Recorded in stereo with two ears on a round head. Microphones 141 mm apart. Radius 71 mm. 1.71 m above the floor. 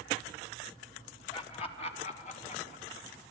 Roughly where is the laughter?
Left.